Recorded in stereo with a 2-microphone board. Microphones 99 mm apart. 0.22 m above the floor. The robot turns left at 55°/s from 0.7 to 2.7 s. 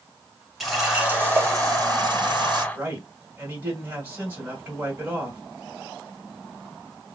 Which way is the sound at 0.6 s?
Straight ahead.